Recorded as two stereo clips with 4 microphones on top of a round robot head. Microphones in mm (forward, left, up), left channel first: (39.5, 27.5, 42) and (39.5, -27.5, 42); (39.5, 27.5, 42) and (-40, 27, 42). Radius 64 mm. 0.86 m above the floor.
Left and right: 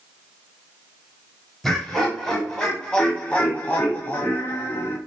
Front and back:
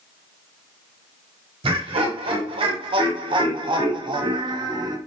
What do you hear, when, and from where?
1.6 s laughter: 175° left, 3.5 m; by 5.0 s 145° left, 1.8 m